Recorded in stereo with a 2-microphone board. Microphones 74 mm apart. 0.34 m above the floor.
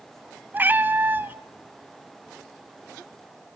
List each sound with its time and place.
0.5 s a cat meowing: 25° right (ahead or behind), 1.0 m